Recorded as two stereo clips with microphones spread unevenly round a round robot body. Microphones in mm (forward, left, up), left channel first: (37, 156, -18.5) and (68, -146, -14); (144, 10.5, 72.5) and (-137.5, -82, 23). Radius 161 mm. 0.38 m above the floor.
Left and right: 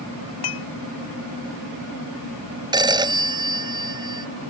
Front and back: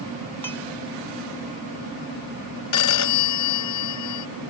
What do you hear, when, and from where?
0.4 s dishes clattering: 100° left
2.7 s a phone ringing: 10° right